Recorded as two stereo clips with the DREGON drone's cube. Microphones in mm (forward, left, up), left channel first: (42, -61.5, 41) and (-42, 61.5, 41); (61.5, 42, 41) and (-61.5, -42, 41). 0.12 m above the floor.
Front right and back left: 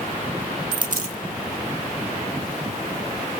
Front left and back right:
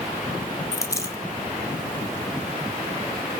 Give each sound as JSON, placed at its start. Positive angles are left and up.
{"t": 0.7, "sound": "a dropped coin", "azimuth_deg": 100, "distance_m": 0.8}